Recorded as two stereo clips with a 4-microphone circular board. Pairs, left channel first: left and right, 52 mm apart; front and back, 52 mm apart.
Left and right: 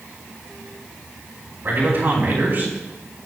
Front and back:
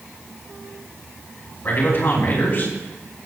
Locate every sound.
1.6 s a man speaking: 40° right, 4.5 m